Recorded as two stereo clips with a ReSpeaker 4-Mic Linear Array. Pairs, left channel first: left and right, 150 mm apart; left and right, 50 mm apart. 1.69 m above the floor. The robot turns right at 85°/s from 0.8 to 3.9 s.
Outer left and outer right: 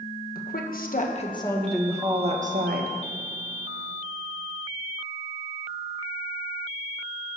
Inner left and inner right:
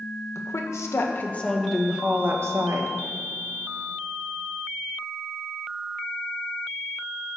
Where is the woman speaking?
100° left, 1.5 m; by 2.9 s 80° right, 1.5 m.